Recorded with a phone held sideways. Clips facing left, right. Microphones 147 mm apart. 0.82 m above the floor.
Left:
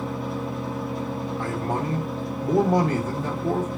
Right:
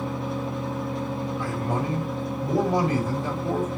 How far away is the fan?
About 1.0 m.